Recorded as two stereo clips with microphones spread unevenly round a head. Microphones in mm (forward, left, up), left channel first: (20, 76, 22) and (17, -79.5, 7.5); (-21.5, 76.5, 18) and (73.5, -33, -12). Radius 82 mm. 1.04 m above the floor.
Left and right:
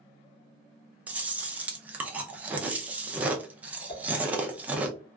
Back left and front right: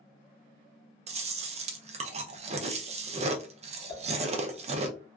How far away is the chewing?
About 0.5 m.